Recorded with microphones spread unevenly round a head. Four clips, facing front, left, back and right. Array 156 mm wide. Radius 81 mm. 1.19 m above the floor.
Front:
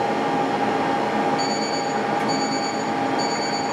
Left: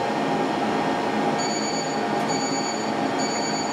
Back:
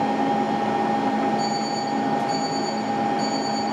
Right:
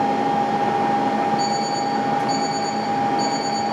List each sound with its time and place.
0.0 s a machine running: 15° right, 5.5 m
1.4 s an alarm clock: 20° left, 5 m